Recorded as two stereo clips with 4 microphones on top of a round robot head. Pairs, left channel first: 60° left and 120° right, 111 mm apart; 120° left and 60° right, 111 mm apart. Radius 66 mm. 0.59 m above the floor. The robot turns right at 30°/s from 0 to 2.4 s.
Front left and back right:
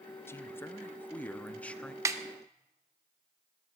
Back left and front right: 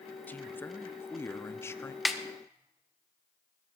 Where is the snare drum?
150° right, 1.2 m; by 2.2 s 145° right, 1.2 m.